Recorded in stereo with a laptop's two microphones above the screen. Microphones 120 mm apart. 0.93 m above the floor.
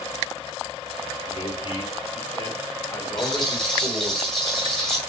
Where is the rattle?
5° left (ahead or behind), 2.5 m.